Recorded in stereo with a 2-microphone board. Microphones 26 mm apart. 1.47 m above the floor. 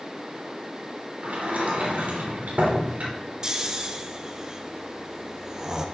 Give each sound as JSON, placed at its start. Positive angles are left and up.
{"t": 1.2, "sound": "a sliding door", "side_deg": -80, "distance_m": 3.5}
{"t": 3.4, "sound": "snoring", "side_deg": -25, "distance_m": 1.1}